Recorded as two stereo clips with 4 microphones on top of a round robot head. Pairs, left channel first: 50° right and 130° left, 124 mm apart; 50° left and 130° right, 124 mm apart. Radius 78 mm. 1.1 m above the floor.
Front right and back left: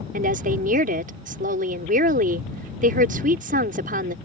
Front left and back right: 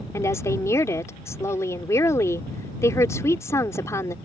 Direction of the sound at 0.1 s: 120° left.